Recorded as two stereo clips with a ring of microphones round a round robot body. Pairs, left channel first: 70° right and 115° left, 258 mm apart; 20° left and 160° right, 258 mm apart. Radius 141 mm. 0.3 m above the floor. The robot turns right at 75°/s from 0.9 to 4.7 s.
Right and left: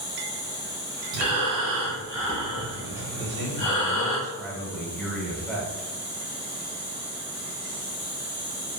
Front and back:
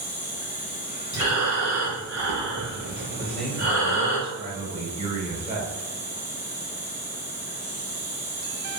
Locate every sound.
0.0 s an insect: 25° right, 1.5 m; by 8.8 s 100° right, 1.5 m
1.1 s breathing: 95° left, 1.5 m; by 4.2 s 35° right, 1.5 m
3.2 s a man speaking: 90° left, 1.0 m; by 5.9 s 155° right, 1.0 m